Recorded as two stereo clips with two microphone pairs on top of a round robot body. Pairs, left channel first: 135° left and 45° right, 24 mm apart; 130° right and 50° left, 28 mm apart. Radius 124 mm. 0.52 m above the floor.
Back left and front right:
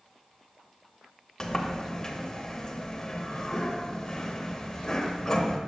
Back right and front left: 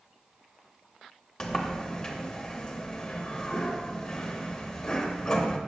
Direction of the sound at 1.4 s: Straight behind.